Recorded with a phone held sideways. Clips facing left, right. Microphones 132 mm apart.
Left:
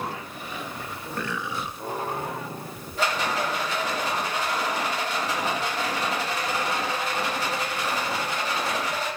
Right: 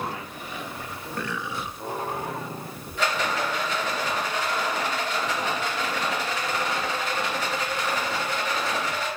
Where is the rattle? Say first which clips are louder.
Even; 35° left (ahead or behind), 2 m.